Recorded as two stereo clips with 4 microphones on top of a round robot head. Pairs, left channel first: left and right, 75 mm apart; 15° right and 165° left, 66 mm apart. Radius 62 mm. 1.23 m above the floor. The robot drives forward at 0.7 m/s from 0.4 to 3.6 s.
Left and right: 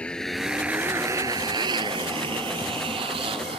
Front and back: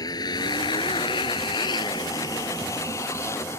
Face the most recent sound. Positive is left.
turn(degrees=-75)